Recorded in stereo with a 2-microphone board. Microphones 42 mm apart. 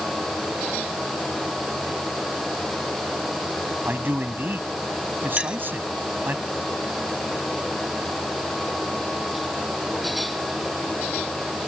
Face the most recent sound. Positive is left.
turn(degrees=-20)  # may be behind; listen again after turning